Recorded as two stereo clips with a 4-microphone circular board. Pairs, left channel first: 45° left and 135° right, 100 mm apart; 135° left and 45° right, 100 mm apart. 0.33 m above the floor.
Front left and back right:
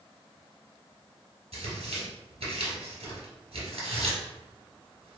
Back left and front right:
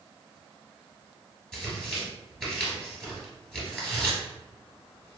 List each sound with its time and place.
1.5 s tearing paper: 140° right, 1.4 m